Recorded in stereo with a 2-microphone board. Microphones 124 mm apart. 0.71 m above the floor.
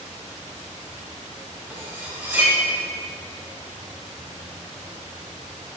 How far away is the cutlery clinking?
About 2 m.